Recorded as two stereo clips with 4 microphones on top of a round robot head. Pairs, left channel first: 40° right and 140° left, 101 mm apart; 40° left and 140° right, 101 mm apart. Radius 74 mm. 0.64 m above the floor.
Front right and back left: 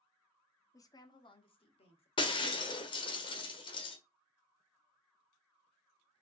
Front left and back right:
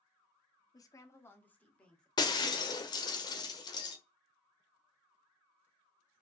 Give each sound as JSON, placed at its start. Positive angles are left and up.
{"t": 0.7, "sound": "a woman speaking", "azimuth_deg": 5, "distance_m": 1.2}
{"t": 2.2, "sound": "breaking glass", "azimuth_deg": -5, "distance_m": 1.3}